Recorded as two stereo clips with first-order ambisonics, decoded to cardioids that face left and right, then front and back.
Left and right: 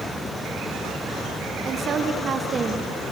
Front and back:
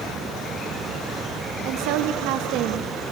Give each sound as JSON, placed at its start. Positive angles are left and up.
{"t": 1.6, "sound": "a woman speaking", "azimuth_deg": -155, "distance_m": 1.8}